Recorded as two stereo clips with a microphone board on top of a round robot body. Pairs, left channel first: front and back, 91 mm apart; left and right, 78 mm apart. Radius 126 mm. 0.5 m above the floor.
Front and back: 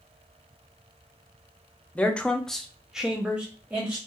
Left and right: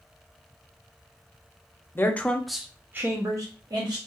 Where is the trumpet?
No trumpet in this recording.